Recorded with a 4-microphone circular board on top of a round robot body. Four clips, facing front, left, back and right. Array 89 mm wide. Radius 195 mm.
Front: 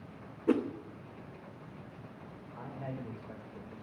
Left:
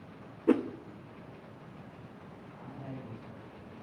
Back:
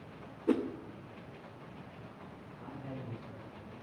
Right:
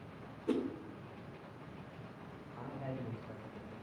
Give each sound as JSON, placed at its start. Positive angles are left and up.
{"t": 0.5, "sound": "a whoosh", "azimuth_deg": 85, "distance_m": 1.4}
{"t": 2.5, "sound": "a man speaking", "azimuth_deg": -40, "distance_m": 4.0}